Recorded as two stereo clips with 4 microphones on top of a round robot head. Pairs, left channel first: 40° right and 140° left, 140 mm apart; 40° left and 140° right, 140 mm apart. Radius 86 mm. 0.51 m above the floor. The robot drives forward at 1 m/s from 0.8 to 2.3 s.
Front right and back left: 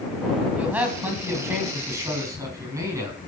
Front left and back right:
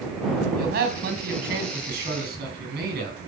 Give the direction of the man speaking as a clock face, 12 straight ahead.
5 o'clock.